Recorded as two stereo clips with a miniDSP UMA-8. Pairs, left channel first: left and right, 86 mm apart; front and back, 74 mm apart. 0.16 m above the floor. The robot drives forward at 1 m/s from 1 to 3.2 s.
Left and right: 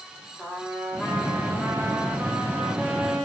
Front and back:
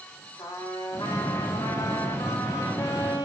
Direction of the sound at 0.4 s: 5° right.